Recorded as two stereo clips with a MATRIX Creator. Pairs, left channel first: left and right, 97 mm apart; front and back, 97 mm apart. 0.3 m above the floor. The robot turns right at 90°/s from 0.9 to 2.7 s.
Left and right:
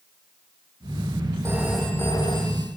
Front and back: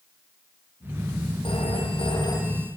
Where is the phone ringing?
30° right, 7 m; by 2.7 s 80° left, 7 m.